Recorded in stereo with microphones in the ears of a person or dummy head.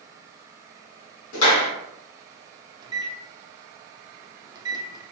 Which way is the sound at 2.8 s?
30° right (ahead or behind).